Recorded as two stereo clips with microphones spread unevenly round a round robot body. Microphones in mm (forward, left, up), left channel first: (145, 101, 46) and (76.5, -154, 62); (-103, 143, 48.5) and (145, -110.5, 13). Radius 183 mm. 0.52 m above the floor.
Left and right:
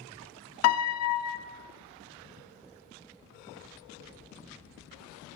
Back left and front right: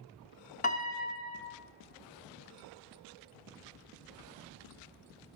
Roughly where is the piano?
Ahead left.